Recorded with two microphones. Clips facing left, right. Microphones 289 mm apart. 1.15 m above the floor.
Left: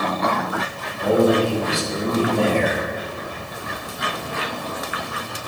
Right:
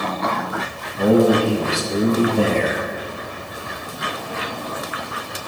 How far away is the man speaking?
About 1.4 m.